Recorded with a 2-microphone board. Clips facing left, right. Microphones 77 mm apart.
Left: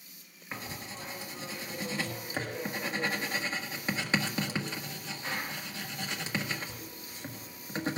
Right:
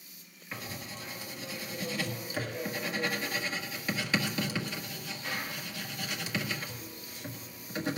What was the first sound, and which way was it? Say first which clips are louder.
Writing: left 1 dB; 30° left (ahead or behind).